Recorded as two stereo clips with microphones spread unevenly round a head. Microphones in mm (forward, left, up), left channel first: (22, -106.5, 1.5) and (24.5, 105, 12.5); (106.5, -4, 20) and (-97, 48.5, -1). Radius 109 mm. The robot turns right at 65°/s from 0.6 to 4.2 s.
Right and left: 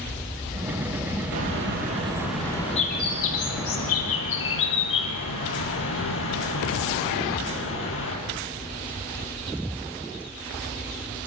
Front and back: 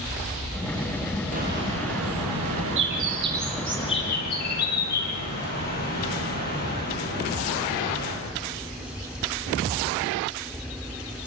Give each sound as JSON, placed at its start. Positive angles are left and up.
{"t": 1.3, "sound": "a bird", "azimuth_deg": 110, "distance_m": 6.0}